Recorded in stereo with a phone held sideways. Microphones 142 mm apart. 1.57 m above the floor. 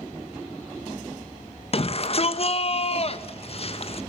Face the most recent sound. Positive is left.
turn(degrees=45)  # may be behind; listen again after turning